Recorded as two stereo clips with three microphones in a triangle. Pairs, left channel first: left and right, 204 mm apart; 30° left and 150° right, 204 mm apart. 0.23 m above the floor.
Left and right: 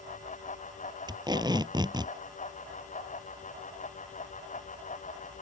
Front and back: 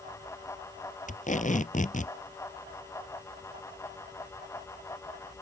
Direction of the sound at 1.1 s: 20° right.